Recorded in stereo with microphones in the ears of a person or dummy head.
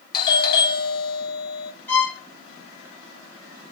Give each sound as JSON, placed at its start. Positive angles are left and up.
{"t": 0.1, "sound": "a doorbell", "side_deg": 25, "distance_m": 0.9}
{"t": 1.9, "sound": "a violin", "side_deg": 10, "distance_m": 0.9}